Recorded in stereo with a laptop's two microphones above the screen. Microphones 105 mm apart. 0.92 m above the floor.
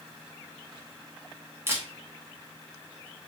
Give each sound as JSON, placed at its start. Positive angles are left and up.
{"t": 1.7, "sound": "a camera shutter", "side_deg": -25, "distance_m": 0.7}